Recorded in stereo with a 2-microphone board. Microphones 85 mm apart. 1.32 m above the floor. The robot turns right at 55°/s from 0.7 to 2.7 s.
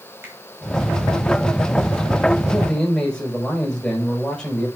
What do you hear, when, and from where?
0.2 s a finger snap: 25° right (ahead or behind), 4 m
2.5 s a man speaking: 5° right (ahead or behind), 5 m; by 4.7 s 5° left (ahead or behind), 5 m